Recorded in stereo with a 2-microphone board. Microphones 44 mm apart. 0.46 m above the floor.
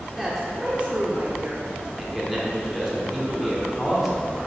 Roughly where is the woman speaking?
Centre.